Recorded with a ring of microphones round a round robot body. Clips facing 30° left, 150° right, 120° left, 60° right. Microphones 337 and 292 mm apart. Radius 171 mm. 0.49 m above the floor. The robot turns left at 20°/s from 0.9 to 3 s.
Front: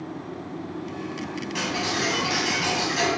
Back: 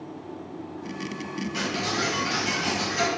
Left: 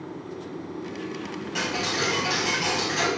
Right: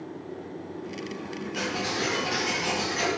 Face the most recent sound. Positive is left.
turn(degrees=90)